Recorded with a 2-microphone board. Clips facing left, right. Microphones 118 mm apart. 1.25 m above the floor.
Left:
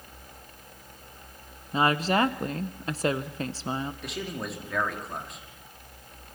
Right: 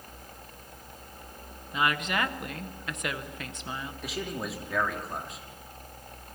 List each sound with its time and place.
1.7 s a woman speaking: 35° left (ahead or behind), 0.9 m
4.0 s a man speaking: centre (ahead or behind), 3 m